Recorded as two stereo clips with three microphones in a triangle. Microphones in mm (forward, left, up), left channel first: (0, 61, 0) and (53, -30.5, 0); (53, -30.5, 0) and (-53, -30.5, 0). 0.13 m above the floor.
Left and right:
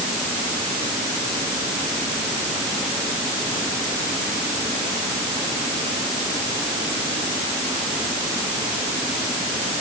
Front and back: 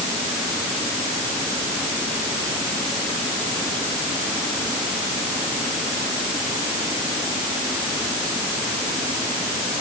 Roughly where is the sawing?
No sawing in this recording.